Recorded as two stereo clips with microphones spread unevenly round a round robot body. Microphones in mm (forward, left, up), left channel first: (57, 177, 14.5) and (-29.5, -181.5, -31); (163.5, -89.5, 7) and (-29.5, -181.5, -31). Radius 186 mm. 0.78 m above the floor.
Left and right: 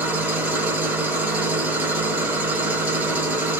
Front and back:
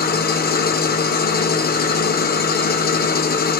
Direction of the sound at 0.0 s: 15° right.